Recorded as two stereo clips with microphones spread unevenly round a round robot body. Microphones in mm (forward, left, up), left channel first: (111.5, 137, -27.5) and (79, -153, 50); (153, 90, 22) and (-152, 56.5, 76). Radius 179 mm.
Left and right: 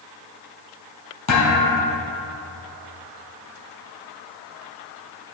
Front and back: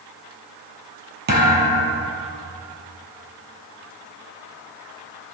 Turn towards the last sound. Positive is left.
turn(degrees=135)